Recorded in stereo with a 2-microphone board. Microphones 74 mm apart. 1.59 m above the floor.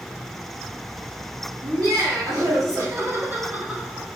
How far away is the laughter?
About 2.5 m.